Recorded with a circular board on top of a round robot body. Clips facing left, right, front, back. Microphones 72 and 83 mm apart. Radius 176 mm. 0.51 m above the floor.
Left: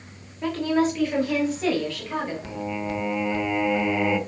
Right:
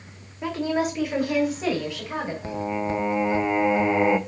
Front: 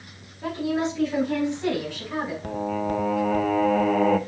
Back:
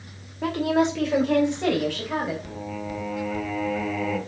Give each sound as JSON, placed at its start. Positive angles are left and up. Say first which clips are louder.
{"t": 0.4, "sound": "a woman speaking", "louder": "left 2 dB, back 4 dB", "azimuth_deg": -170, "distance_m": 2.5}
{"t": 2.4, "sound": "singing", "louder": "right 3 dB, front 7 dB", "azimuth_deg": -30, "distance_m": 0.8}